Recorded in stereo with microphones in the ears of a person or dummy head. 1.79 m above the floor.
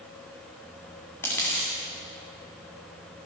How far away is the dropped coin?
About 2 m.